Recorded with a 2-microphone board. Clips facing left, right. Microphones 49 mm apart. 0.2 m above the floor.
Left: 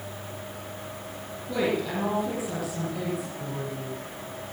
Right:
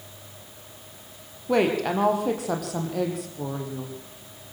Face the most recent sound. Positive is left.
turn(degrees=-75)  # may be behind; listen again after turning